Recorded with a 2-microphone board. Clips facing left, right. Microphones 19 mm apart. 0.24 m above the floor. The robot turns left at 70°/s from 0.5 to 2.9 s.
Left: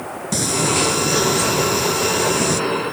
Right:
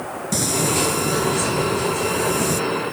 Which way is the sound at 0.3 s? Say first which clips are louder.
Left 2 dB; 170° left.